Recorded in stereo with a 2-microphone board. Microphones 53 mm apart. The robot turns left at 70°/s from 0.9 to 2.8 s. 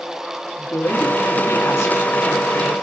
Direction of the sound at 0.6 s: 110° left.